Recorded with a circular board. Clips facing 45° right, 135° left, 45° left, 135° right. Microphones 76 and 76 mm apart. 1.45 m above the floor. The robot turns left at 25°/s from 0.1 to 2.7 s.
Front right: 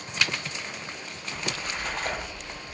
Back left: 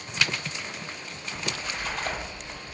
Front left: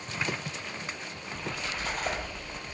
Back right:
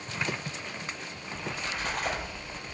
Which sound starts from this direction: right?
A splash, at 1.3 s.